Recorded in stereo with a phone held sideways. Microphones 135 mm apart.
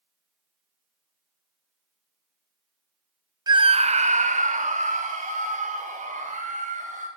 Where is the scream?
30° right (ahead or behind), 0.8 m; by 7.1 s 85° right, 5.5 m.